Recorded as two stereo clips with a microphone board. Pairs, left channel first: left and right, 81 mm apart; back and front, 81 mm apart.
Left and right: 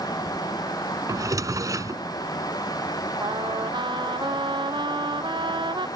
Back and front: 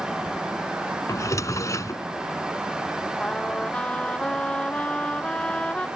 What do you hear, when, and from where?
1.1 s a drawer: 130° right
3.2 s a trumpet: 105° right